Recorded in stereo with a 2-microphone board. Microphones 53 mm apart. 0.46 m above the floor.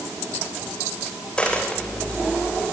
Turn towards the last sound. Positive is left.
turn(degrees=20)  # may be behind; listen again after turning